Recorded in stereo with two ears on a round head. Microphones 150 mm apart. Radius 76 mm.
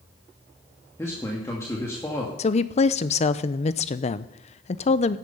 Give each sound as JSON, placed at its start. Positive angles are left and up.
{"t": 1.0, "sound": "a man speaking", "side_deg": 15, "distance_m": 1.7}
{"t": 2.4, "sound": "a woman speaking", "side_deg": 40, "distance_m": 0.6}